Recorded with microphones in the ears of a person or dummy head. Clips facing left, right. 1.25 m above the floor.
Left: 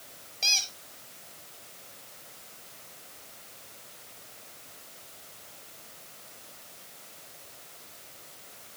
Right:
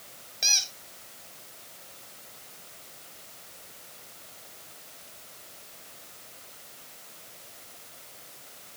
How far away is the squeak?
About 4.5 m.